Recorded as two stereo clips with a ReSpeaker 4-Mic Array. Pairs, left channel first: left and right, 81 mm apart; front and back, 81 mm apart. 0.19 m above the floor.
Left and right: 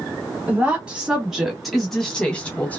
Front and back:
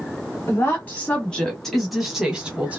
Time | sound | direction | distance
0.5 | a woman speaking | 35° right | 1.4 m